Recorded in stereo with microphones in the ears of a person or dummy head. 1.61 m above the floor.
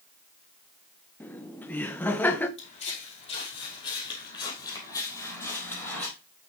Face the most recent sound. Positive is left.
turn(degrees=5)  # may be behind; listen again after turning